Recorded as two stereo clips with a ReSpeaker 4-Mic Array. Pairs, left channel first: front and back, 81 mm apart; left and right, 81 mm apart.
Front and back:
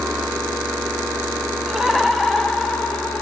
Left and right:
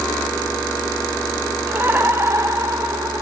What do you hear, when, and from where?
1.7 s laughter: 105° right, 1.3 m; by 3.2 s 70° right, 1.7 m